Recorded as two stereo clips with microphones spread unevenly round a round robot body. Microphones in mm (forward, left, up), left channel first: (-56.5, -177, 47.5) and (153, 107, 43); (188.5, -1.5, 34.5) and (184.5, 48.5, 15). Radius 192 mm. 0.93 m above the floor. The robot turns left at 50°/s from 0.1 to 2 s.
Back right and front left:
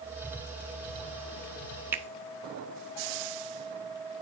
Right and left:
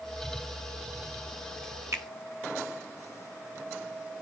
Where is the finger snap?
140° left, 0.7 m; by 2.0 s 135° left, 0.7 m.